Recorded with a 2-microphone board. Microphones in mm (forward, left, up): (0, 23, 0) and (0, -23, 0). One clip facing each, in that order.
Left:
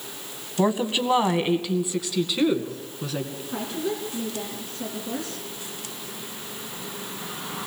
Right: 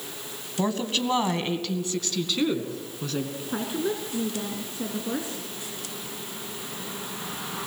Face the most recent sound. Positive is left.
turn(degrees=-25)  # may be behind; listen again after turning